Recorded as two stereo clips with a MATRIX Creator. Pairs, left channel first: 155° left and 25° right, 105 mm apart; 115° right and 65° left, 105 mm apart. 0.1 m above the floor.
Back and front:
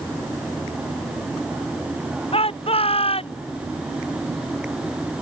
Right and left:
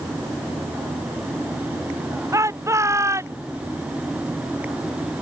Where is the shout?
130° left.